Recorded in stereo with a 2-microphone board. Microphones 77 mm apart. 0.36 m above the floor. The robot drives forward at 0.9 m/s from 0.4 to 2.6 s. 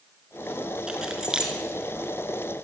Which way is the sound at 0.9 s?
10° right (ahead or behind).